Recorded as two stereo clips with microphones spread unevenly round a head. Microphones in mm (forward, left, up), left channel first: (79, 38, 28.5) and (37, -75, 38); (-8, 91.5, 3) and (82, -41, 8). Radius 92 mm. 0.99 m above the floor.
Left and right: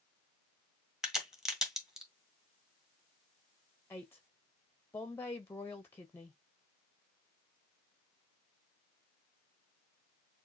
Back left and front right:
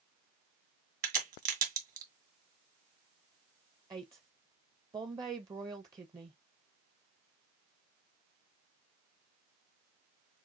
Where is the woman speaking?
5° left, 0.8 m.